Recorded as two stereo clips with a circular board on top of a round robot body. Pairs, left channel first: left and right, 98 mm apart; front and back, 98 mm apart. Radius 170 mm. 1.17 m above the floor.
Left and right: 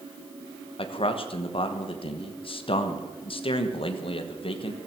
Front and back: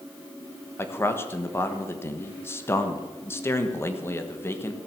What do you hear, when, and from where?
0.8 s a man speaking: 65° left, 1.3 m